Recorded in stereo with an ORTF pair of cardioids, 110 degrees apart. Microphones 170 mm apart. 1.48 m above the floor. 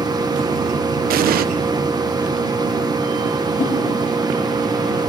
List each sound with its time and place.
0.0 s a machine running: 25° right, 1.6 m
1.1 s an explosion: 60° right, 1.1 m
3.6 s a whoosh: 55° left, 5.5 m